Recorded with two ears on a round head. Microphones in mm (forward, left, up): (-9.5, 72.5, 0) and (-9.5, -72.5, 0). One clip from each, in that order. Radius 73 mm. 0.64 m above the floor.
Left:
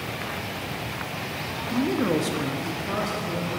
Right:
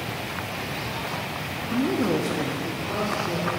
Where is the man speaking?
10° right (ahead or behind), 0.6 m; by 3.5 s 65° left (ahead or behind), 1.3 m.